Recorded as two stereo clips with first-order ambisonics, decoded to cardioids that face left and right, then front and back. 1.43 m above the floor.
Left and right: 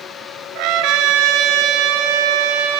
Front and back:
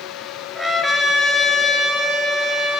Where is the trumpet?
95° right, 4 m.